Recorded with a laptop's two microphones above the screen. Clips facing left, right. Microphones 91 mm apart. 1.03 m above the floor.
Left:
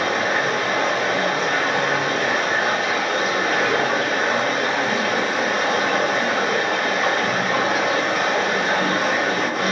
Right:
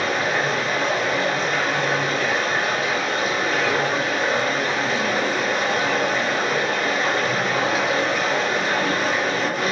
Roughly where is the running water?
Left.